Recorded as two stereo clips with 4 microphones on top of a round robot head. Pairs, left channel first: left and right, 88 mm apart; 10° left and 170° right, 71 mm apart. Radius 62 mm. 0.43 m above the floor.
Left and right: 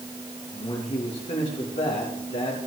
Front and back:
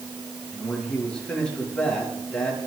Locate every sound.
0.5 s a man speaking: 85° left, 7 m